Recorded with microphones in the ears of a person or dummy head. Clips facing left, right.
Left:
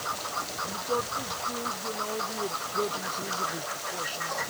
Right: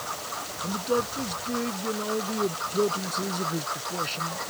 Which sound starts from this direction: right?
A man speaking, at 0.6 s.